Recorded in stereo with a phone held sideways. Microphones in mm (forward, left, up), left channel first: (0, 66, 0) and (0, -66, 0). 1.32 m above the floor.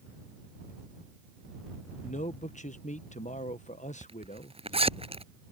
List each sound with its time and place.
2.0 s a man speaking: 65° left (ahead or behind)
4.0 s a zipper: 50° right (ahead or behind)